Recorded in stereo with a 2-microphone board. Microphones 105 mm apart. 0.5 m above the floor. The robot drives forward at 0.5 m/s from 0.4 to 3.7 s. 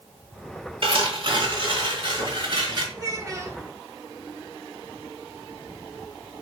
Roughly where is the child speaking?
Right.